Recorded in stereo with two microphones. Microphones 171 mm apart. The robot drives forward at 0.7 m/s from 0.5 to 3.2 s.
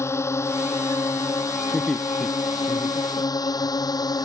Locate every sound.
0.0 s a drone: 15° left (ahead or behind); by 4.2 s 20° left (ahead or behind)
1.7 s laughter: centre (ahead or behind)